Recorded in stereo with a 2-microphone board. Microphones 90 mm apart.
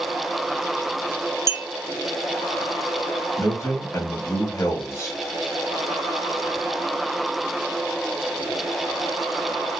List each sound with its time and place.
1.5 s a clink: 35° right (ahead or behind), 0.8 m
3.4 s a man speaking: 30° left (ahead or behind), 1.5 m